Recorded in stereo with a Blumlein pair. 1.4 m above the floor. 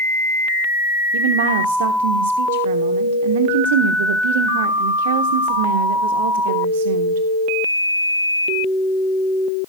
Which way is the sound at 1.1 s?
55° right.